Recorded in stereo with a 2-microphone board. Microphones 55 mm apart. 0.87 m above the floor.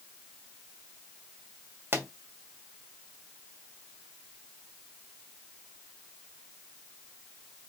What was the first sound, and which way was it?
A pop, 50° right (ahead or behind).